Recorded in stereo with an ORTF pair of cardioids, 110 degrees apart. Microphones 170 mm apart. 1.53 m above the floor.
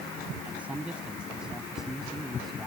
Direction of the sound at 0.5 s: 10° right.